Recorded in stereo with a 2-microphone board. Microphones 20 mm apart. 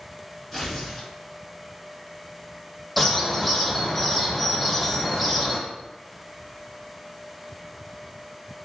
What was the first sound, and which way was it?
Tearing paper, 5° left (ahead or behind).